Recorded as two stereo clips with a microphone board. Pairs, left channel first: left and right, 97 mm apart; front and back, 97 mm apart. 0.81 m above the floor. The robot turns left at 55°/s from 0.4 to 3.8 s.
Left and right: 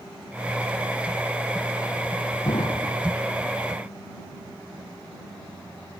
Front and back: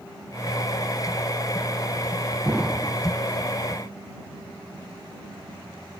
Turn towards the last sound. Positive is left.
turn(degrees=30)